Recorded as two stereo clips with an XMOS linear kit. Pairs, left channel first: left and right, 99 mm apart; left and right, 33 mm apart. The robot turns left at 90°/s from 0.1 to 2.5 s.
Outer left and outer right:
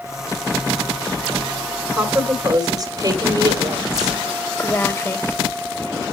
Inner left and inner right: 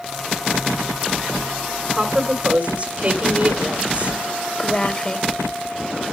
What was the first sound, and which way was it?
A woman speaking, straight ahead.